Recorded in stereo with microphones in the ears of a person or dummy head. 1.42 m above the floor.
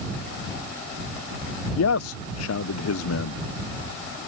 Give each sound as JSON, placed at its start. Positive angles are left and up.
{"t": 1.8, "sound": "a man speaking", "side_deg": 80}